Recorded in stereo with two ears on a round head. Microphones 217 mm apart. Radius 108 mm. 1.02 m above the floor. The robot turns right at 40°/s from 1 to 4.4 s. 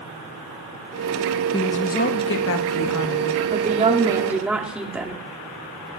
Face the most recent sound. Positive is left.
turn(degrees=-5)